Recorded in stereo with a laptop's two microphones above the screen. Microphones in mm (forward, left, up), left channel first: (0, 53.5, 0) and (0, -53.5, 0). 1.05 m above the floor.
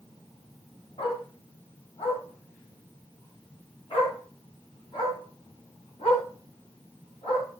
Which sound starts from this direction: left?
A dog barking, at 1.0 s.